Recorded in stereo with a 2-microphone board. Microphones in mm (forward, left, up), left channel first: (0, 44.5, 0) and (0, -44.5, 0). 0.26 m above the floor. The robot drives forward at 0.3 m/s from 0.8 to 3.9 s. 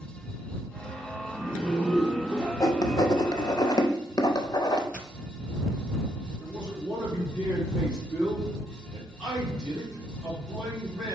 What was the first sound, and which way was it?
A zipper, 5° left (ahead or behind).